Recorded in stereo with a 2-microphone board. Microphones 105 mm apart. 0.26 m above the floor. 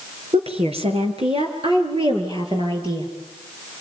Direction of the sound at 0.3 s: 75° right (ahead or behind).